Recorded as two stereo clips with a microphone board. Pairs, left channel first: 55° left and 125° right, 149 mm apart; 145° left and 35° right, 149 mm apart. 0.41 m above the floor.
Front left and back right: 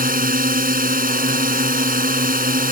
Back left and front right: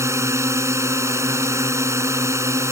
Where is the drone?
105° right.